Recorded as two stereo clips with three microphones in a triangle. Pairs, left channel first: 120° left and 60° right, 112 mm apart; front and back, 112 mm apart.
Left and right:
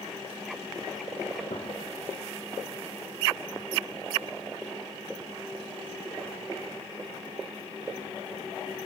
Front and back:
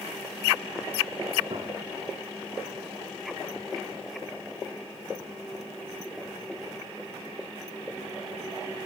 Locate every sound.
1.5 s a gunshot: 140° left, 3 m